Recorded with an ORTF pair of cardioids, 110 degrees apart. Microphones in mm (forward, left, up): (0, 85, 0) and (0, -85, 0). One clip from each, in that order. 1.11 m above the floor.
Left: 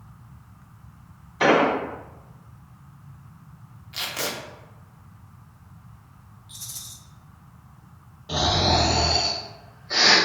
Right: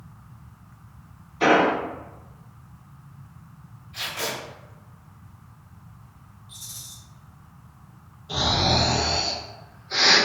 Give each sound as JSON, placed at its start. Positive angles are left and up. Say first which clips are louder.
{"t": 1.4, "sound": "an explosion", "louder": "even", "azimuth_deg": 50, "distance_m": 1.1}
{"t": 3.9, "sound": "tape being pulled", "louder": "left 1 dB", "azimuth_deg": 70, "distance_m": 0.7}
{"t": 6.5, "sound": "a rattle", "louder": "left 1 dB", "azimuth_deg": 30, "distance_m": 0.5}
{"t": 8.3, "sound": "snoring", "louder": "left 1 dB", "azimuth_deg": 65, "distance_m": 1.2}